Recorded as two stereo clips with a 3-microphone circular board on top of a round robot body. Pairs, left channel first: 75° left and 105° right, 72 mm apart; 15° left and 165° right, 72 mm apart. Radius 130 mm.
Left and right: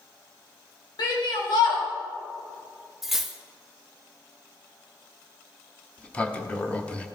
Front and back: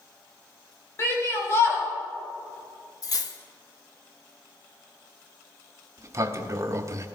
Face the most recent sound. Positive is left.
turn(degrees=150)